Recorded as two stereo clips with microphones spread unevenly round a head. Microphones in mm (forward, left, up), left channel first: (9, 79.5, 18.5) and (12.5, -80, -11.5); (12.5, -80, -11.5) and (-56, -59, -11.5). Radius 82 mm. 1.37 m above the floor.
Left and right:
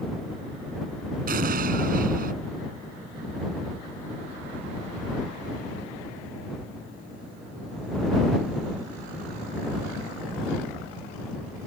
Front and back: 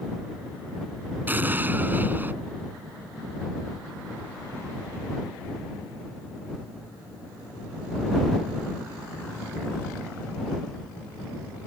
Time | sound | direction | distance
1.3 | an explosion | 130° right | ?